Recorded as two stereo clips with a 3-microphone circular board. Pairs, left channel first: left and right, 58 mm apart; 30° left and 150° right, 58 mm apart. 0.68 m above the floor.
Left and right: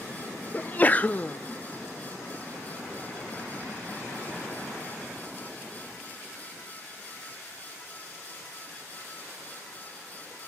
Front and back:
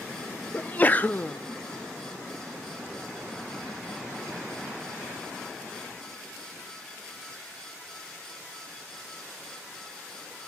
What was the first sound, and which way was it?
A sneeze, 55° left.